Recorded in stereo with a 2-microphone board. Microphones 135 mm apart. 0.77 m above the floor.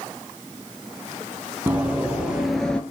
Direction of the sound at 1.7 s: 10° right (ahead or behind).